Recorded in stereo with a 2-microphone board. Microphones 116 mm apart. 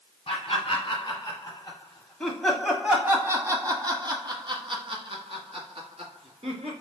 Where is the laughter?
50° left (ahead or behind), 1.7 m; by 6.7 s 65° right (ahead or behind), 2.5 m.